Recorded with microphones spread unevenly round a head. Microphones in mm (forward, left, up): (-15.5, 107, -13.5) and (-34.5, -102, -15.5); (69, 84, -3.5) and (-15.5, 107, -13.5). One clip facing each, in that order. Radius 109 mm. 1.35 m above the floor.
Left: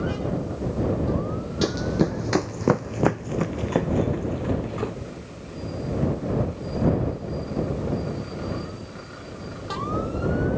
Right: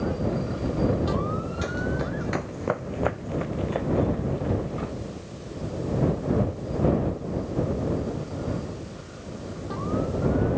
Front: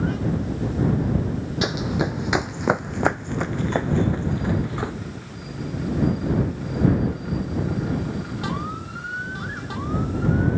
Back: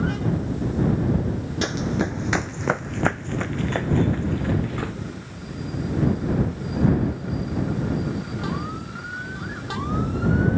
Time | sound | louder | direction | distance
1.6 | running footsteps | left 9 dB, even | 60° left | ?